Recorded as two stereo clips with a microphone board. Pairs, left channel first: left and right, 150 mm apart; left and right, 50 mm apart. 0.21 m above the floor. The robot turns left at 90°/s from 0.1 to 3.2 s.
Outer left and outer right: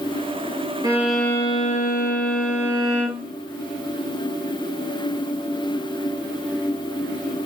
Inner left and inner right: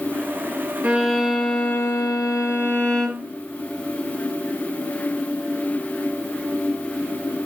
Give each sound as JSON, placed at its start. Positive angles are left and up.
{"t": 0.8, "sound": "a violin", "azimuth_deg": -150, "distance_m": 0.9}